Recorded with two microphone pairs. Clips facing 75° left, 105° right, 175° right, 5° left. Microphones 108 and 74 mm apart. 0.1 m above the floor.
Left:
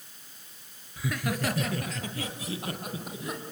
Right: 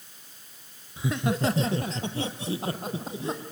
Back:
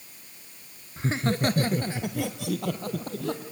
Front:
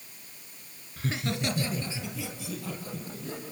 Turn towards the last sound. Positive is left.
turn(degrees=-165)